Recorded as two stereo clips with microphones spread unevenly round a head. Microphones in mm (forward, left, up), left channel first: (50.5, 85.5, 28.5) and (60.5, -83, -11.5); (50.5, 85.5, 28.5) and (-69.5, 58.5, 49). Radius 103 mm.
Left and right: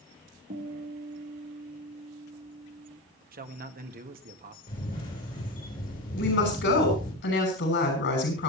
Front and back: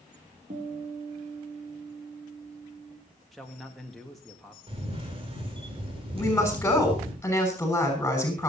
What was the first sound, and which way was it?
A guitar, 130° right.